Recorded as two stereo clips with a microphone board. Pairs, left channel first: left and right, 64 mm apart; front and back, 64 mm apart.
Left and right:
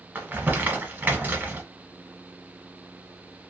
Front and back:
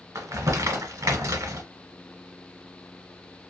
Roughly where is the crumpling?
Behind right.